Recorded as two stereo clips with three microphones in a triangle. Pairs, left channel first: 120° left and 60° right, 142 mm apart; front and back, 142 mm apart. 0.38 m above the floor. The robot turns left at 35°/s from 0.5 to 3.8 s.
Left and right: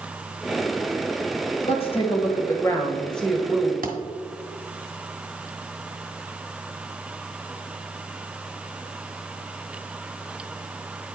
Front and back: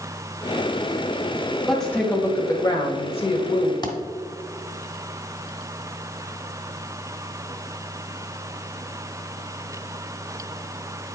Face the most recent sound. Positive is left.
turn(degrees=-60)